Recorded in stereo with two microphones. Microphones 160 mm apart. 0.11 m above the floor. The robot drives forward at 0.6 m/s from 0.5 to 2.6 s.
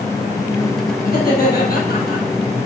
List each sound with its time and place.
1.1 s laughter: 70° left (ahead or behind), 4.5 m; by 2.2 s 65° left (ahead or behind), 4.5 m